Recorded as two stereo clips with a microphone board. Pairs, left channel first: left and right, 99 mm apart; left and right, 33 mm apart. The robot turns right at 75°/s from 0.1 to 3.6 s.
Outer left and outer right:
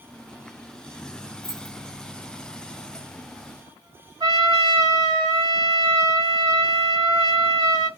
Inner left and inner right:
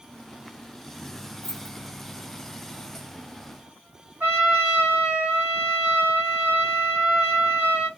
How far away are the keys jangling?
About 1.6 m.